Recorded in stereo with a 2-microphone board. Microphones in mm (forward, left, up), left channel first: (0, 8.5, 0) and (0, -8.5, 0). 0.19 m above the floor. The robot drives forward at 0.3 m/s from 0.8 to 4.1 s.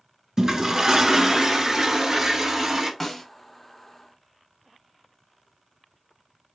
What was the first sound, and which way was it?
A toilet flushing, 35° right (ahead or behind).